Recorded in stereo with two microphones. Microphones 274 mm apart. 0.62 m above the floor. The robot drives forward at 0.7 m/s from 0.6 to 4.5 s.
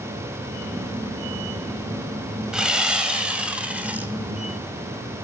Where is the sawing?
5° right (ahead or behind), 2.0 m.